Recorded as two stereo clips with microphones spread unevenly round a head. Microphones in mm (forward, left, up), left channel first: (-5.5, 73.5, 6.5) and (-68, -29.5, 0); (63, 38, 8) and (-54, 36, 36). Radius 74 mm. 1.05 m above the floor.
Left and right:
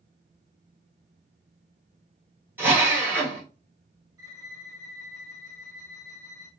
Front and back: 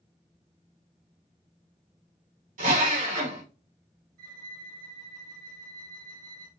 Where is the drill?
165° left, 3.5 m.